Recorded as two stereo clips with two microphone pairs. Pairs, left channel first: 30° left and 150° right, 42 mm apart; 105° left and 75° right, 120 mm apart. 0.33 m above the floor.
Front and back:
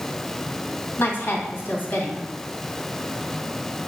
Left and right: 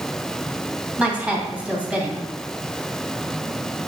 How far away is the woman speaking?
About 2.5 m.